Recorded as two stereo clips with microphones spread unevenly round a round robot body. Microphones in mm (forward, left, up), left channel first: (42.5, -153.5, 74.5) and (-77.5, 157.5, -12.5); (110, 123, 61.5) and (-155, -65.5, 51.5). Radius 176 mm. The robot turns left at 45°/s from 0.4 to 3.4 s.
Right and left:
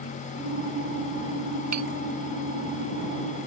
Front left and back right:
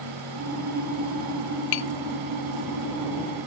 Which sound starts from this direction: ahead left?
Tapping, at 1.7 s.